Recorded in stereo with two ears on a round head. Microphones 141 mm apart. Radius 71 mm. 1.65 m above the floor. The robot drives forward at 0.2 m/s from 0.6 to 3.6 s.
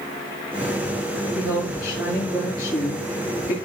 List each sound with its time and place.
1.4 s a woman speaking: 75° left (ahead or behind), 7 m; by 3.5 s 70° left (ahead or behind), 7.5 m